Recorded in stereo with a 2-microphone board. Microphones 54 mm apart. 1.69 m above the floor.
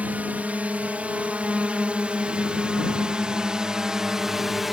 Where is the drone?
30° right (ahead or behind); by 4.7 s 5° right (ahead or behind).